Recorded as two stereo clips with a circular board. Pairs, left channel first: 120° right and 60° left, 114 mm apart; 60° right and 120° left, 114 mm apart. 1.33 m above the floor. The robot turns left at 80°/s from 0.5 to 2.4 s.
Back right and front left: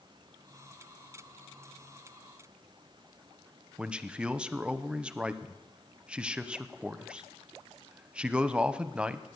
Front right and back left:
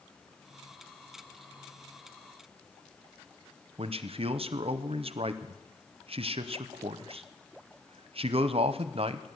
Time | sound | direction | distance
3.8 | a man speaking | 140° left | 0.6 m